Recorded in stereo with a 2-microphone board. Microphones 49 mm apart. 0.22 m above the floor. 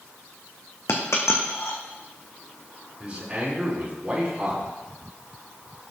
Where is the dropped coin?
75° left (ahead or behind), 1.7 m.